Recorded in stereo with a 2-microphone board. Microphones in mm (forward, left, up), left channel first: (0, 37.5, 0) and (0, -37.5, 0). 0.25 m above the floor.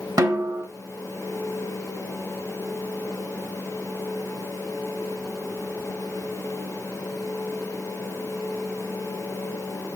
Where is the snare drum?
45° right (ahead or behind), 0.9 m.